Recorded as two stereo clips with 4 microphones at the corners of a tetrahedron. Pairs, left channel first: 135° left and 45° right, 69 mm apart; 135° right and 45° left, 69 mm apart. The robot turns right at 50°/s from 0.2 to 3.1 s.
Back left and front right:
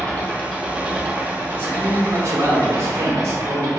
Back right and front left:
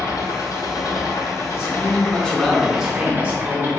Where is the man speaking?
95° right, 1.2 m; by 3.7 s 15° right, 1.2 m.